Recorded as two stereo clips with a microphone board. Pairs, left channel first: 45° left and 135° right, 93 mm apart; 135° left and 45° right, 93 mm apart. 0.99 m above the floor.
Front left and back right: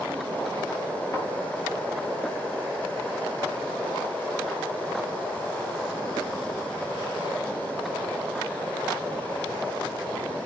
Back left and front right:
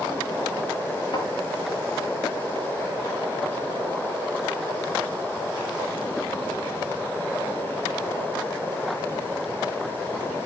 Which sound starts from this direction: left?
A thud, at 1.1 s.